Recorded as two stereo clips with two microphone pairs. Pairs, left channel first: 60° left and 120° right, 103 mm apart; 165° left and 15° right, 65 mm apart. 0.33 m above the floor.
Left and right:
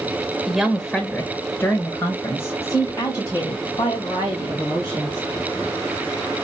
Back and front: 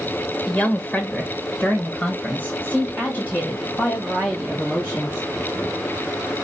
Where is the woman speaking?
170° left, 1.0 m; by 5.3 s 100° left, 3 m.